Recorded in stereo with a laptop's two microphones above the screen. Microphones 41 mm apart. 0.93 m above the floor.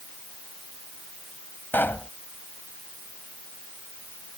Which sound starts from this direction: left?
A pop, at 1.7 s.